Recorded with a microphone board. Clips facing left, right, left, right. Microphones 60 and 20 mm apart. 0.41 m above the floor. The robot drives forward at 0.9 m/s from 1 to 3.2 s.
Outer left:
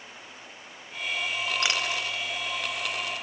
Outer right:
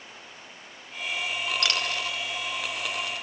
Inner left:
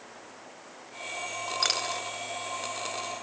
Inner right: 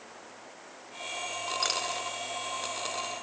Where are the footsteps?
I don't hear footsteps.